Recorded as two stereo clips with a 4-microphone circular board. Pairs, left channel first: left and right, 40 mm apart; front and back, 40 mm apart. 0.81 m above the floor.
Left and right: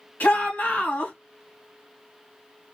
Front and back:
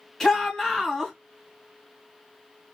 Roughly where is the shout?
Left.